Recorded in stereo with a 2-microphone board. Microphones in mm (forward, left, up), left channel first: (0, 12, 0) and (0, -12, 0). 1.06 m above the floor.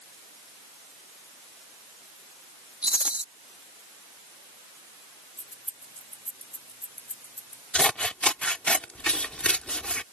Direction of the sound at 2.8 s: 60° right (ahead or behind).